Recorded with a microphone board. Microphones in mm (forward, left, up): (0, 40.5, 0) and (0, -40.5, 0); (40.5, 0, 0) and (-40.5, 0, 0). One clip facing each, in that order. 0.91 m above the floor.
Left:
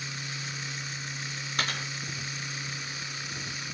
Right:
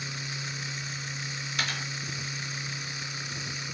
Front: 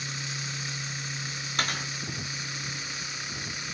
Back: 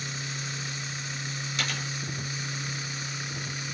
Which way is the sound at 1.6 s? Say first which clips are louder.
Left 1 dB, front 3 dB; 40° left.